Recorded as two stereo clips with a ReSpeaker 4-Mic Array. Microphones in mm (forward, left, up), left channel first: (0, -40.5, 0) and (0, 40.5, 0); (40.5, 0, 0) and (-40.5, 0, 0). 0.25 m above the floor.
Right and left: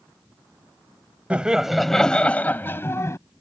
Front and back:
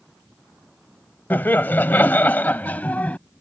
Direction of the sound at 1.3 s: 30° left.